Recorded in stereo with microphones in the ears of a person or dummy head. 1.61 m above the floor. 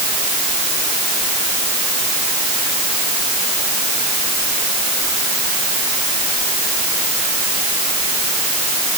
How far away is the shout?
No shout in this recording.